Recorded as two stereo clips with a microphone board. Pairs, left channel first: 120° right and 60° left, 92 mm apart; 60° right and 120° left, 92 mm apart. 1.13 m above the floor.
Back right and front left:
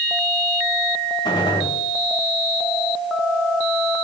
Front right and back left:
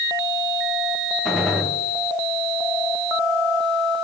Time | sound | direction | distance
1.2 | a gunshot | 155° right | 4.5 m